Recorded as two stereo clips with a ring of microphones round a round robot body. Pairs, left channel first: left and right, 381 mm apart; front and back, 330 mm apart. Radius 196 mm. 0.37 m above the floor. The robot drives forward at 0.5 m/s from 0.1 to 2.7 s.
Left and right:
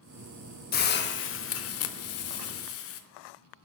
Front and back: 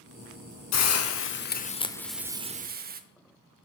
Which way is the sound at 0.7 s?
30° left.